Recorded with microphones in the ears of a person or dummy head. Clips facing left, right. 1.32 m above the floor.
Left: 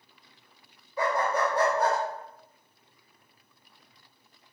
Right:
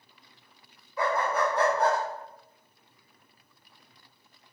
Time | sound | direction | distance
1.0 | a dog barking | 25° left (ahead or behind) | 1.7 m